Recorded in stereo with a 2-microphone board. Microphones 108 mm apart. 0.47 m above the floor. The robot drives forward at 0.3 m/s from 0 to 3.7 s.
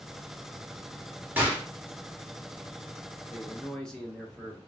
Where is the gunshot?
15° right (ahead or behind), 0.8 m.